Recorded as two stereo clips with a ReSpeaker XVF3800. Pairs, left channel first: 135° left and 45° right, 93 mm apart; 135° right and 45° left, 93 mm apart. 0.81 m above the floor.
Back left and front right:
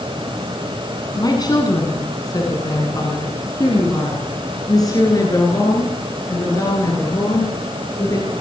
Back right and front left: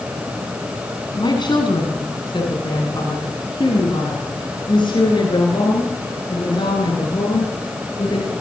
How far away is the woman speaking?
About 7 m.